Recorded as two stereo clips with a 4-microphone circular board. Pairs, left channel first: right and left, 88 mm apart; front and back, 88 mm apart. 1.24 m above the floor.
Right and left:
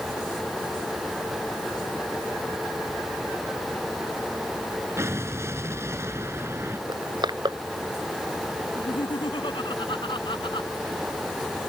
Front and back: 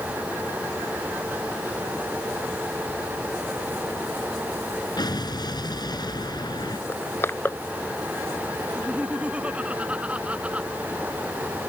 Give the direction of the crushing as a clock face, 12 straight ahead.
10 o'clock.